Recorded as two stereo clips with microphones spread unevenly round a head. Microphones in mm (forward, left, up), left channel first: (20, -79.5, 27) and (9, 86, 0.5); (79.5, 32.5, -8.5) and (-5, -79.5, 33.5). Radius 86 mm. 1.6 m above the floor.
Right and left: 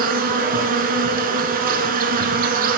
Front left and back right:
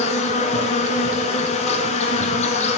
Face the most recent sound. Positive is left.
turn(degrees=75)